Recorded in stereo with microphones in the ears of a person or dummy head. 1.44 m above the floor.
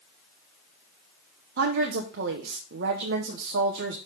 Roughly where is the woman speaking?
Right.